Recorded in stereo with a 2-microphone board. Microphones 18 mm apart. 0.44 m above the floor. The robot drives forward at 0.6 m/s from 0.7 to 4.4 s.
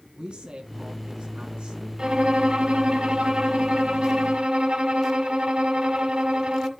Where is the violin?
60° right (ahead or behind), 2 m; by 6.7 s 70° right (ahead or behind), 2 m.